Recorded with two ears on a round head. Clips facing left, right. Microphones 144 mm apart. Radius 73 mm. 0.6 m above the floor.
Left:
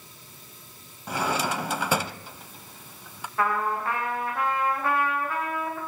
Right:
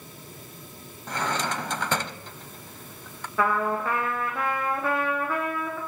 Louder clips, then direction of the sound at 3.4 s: Right 2 dB; 75° right (ahead or behind).